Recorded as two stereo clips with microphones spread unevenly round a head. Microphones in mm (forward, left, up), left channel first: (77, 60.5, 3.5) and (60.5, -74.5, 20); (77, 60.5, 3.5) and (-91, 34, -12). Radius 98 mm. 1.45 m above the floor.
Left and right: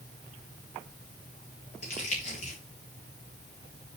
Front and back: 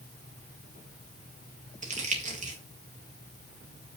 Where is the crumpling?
145° left, 2 m.